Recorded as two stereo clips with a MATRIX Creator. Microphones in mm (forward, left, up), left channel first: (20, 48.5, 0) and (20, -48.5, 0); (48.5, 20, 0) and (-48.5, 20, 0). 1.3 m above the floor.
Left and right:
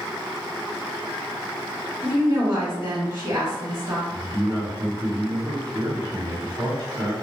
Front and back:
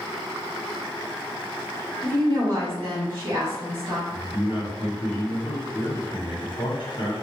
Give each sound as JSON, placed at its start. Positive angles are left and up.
{"t": 2.0, "sound": "a woman speaking", "azimuth_deg": -140, "distance_m": 1.9}
{"t": 4.1, "sound": "a man speaking", "azimuth_deg": -40, "distance_m": 1.0}